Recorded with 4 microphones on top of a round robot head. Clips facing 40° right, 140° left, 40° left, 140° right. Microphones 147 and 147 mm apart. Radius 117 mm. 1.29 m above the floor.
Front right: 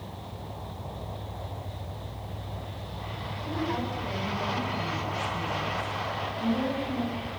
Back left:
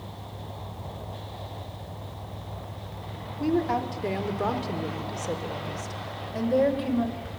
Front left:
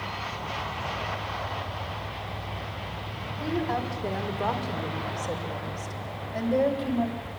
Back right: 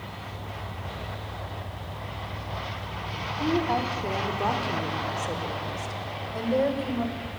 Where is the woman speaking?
145° left, 4.5 m; by 7.3 s 135° left, 6.5 m.